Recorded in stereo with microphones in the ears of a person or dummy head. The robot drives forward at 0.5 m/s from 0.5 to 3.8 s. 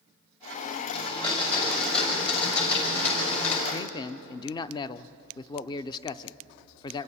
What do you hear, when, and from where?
0.9 s a blender: 25° left (ahead or behind), 8 m; by 3.6 s 30° left (ahead or behind), 7 m
3.7 s a man speaking: 20° left (ahead or behind), 0.6 m